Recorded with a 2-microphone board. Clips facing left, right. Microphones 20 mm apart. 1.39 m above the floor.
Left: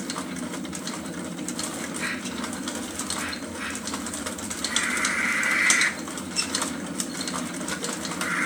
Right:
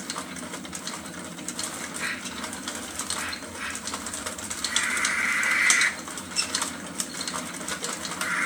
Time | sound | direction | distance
0.0 | an aircraft | 30° left (ahead or behind) | ?